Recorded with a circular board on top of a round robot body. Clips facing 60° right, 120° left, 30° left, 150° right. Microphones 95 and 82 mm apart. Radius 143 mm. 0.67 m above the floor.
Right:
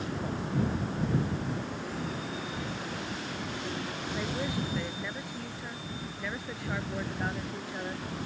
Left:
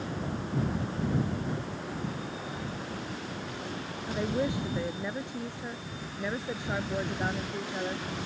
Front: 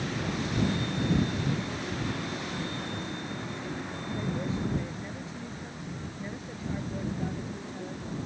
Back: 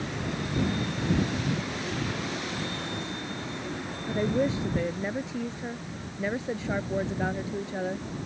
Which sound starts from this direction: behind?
A woman speaking, at 4.1 s.